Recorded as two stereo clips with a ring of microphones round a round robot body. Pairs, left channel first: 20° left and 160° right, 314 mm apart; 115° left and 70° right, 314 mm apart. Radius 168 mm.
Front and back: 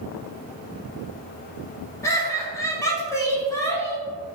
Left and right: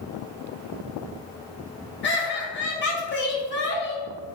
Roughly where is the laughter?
Left.